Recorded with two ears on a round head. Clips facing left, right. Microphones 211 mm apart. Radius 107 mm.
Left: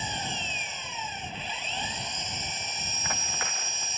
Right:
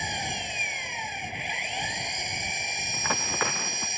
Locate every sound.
0.0 s an engine running: 15° right (ahead or behind)
2.9 s running footsteps: 60° right (ahead or behind)